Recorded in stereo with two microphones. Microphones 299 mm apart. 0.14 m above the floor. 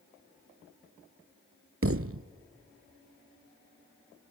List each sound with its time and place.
1.8 s a thud: 45° right (ahead or behind), 0.6 m